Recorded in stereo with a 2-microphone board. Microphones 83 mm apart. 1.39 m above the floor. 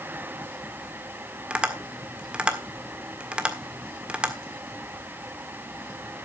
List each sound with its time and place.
1.5 s tapping: 15° right (ahead or behind), 1.6 m